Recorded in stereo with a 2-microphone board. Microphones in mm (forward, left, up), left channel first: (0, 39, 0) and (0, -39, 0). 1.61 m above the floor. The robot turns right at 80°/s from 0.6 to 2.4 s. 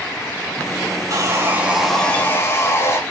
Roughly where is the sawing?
Ahead right.